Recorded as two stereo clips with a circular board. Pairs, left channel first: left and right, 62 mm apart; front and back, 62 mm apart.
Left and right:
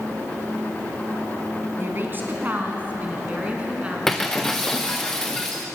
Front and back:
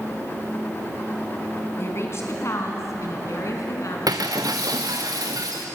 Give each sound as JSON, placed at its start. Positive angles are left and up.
{"t": 1.8, "sound": "a woman speaking", "azimuth_deg": -40, "distance_m": 3.0}
{"t": 4.1, "sound": "breaking glass", "azimuth_deg": 175, "distance_m": 2.0}